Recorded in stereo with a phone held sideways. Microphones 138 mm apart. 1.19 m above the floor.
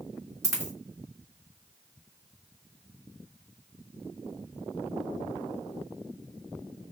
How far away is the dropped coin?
About 3 m.